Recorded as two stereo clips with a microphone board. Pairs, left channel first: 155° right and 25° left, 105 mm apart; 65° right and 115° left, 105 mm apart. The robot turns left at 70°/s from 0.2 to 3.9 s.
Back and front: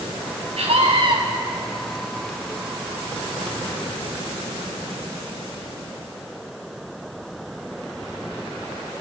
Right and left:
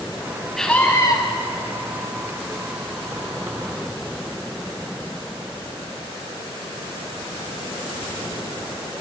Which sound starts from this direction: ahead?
A scream, at 0.6 s.